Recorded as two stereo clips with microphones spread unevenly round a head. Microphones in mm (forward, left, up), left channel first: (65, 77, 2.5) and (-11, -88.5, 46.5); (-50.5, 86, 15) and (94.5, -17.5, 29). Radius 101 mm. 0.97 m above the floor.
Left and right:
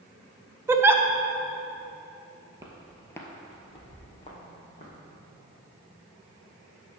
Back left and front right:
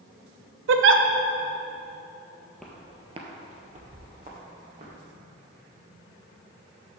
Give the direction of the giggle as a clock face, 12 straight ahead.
1 o'clock.